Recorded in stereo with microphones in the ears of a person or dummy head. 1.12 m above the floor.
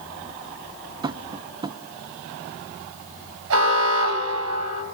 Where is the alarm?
70° right (ahead or behind), 6.5 m.